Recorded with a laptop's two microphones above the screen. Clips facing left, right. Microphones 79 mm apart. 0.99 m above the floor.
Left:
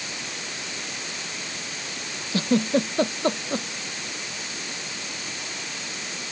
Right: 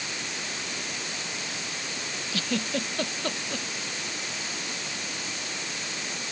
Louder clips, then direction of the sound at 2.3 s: Left 9 dB; 30° left (ahead or behind).